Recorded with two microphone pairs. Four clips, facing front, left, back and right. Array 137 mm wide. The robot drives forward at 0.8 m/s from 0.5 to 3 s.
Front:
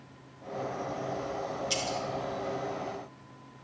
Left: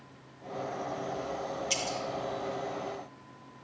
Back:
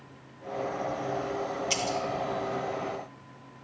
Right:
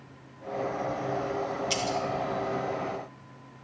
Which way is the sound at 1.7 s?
170° right.